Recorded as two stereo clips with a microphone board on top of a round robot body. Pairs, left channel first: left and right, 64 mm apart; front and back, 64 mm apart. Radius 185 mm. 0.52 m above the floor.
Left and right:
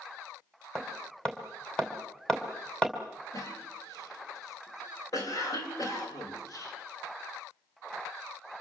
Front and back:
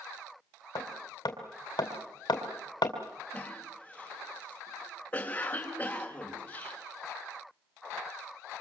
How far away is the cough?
About 4 m.